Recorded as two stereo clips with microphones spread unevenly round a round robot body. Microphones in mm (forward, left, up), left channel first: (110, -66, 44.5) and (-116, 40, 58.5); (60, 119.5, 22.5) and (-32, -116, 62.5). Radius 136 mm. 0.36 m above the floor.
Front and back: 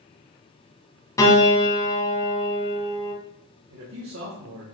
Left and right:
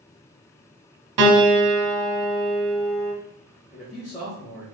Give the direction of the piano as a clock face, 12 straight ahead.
3 o'clock.